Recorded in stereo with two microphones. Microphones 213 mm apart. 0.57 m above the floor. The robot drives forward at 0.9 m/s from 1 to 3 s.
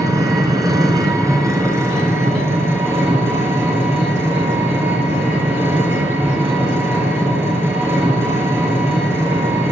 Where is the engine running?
15° right (ahead or behind), 3.5 m; by 9.7 s 10° right (ahead or behind), 5.5 m.